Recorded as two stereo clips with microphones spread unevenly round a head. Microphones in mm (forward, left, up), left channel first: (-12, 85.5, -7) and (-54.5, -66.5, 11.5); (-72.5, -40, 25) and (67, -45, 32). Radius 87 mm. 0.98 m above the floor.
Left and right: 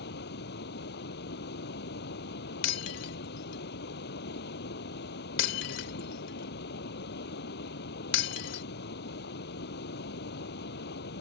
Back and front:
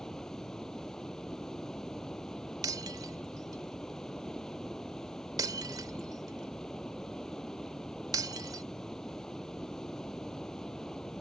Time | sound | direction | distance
0.0 | running water | 90° left | ?
2.6 | breaking glass | 70° left | ?